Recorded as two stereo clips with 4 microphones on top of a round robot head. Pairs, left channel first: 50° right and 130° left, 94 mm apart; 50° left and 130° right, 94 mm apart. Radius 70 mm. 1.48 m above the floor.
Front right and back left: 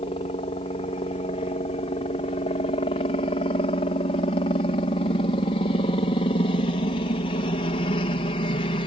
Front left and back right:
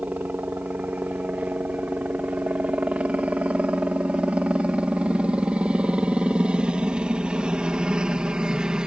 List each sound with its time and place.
0.0 s a helicopter: 55° right; by 8.9 s 50° right